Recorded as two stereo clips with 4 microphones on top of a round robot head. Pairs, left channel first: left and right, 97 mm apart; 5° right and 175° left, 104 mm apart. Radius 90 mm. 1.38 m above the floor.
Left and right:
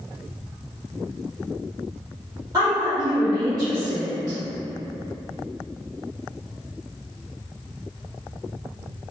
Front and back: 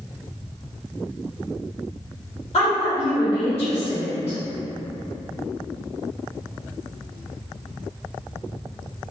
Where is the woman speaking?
30° right, 1.6 m.